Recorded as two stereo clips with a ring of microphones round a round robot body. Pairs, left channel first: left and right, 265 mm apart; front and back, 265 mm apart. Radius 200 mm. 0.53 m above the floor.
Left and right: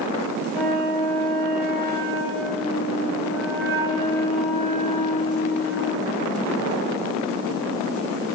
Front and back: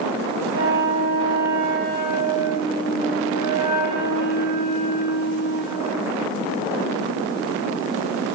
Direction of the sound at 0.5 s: 170° right.